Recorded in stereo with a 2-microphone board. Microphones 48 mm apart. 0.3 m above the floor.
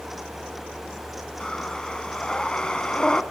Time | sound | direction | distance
1.4 | breathing | 15° left (ahead or behind) | 1.2 m